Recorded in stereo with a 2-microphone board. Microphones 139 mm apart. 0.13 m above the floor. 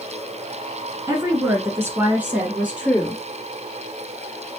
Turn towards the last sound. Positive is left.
turn(degrees=0)  # may be behind; listen again after turning